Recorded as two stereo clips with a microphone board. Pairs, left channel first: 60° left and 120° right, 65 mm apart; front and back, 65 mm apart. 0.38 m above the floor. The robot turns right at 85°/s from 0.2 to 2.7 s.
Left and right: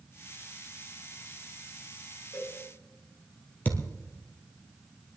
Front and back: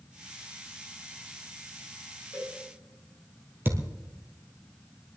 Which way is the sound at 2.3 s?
110° left.